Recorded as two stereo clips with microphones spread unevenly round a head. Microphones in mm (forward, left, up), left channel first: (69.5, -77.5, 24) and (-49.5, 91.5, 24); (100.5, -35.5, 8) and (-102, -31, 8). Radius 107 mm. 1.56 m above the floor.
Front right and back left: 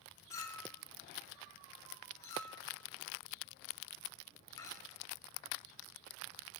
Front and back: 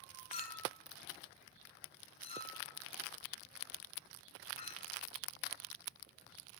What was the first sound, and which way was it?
A clink, 5° left.